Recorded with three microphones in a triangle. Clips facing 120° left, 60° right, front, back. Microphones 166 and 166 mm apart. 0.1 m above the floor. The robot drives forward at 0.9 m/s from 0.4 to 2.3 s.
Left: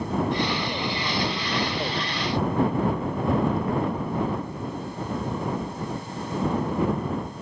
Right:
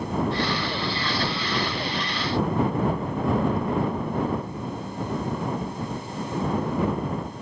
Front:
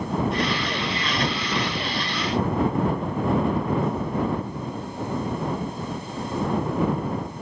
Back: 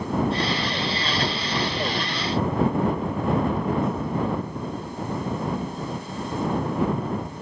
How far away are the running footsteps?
I don't hear running footsteps.